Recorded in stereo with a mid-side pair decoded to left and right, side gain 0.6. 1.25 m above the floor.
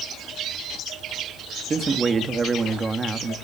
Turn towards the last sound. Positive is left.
turn(degrees=-30)